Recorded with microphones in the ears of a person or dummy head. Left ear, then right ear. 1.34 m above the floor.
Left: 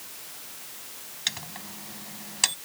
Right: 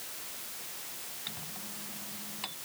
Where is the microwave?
65° left (ahead or behind).